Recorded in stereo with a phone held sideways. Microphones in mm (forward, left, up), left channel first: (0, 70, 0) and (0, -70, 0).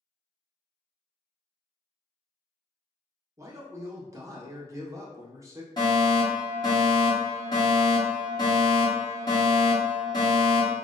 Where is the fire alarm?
35° left (ahead or behind), 1.4 m.